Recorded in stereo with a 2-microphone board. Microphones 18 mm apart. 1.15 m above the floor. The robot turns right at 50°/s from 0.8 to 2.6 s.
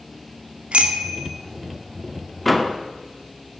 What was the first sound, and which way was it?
A bicycle bell, 85° right.